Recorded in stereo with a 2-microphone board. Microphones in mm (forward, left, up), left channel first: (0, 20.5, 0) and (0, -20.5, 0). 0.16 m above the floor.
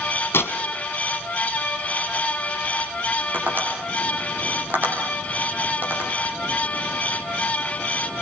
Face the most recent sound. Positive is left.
turn(degrees=-50)  # may be behind; listen again after turning